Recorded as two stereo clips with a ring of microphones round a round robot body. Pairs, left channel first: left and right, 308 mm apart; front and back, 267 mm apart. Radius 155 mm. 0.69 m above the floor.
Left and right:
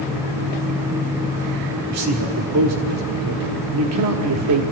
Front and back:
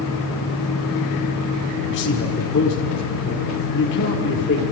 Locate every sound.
1.9 s a man speaking: 55° right, 1.6 m